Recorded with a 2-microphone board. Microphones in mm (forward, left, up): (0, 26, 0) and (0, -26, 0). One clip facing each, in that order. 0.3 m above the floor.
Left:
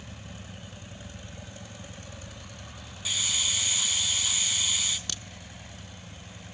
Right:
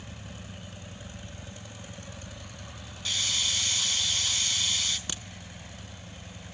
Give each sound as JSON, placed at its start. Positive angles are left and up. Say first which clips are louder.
{"t": 3.0, "sound": "a hiss", "louder": "even", "side_deg": 5, "distance_m": 2.0}
{"t": 5.1, "sound": "a crack", "louder": "right 1 dB", "side_deg": -20, "distance_m": 0.9}